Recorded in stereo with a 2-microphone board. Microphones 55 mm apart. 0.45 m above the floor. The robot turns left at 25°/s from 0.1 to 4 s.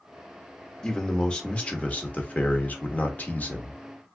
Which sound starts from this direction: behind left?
A man speaking, at 0.8 s.